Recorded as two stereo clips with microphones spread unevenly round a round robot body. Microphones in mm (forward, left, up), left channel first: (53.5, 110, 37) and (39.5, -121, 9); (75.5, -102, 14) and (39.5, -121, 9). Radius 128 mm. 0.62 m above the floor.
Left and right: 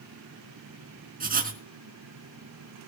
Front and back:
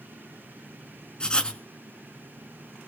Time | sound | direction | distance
1.2 | writing | 40° right | 4 m